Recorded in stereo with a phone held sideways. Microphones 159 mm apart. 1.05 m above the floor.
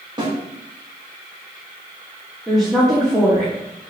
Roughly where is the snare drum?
Right.